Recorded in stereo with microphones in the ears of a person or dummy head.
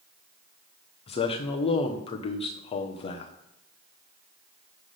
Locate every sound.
1.1 s a man speaking: 35° left (ahead or behind), 0.9 m